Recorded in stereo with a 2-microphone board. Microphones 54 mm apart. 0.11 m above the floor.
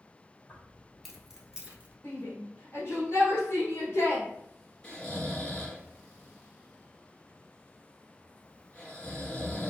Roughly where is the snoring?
Centre.